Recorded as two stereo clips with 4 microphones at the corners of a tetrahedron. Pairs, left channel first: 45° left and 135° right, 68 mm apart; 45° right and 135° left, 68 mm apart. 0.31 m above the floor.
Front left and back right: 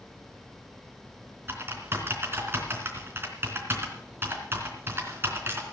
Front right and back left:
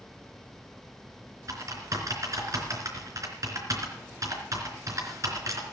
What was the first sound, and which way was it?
Typing on a keyboard, 170° left.